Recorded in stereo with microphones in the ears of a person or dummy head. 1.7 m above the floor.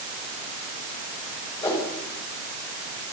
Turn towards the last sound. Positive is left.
turn(degrees=20)  # may be behind; listen again after turning